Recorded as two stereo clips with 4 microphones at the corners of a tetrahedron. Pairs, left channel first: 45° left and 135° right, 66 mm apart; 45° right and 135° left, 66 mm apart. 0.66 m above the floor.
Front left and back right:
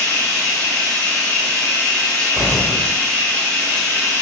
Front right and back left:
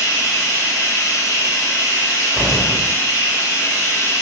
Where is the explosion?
45° left, 1.0 m.